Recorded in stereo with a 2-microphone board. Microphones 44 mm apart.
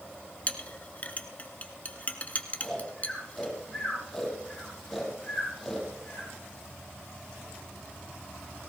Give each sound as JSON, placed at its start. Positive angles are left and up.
{"t": 0.5, "sound": "a clink", "side_deg": 35, "distance_m": 1.3}
{"t": 2.6, "sound": "snoring", "side_deg": 5, "distance_m": 7.0}